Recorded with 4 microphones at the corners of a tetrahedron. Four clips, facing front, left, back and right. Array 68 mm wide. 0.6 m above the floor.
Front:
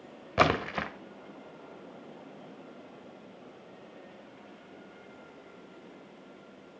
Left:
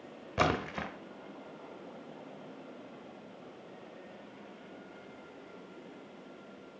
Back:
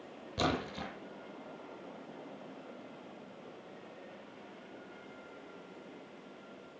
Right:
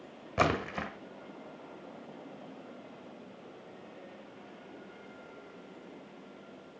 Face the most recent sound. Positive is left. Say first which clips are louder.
# right 1 dB, front 8 dB
turn(degrees=-5)